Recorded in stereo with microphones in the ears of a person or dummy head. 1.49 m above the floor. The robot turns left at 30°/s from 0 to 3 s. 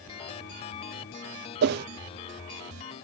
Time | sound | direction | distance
1.6 | a whoosh | 55° right (ahead or behind) | ?